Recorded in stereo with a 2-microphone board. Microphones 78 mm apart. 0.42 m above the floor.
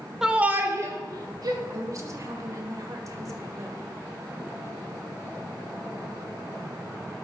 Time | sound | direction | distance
0.2 | a shout | 10° right (ahead or behind) | 1.2 m
1.7 | a woman speaking | 45° right (ahead or behind) | 1.6 m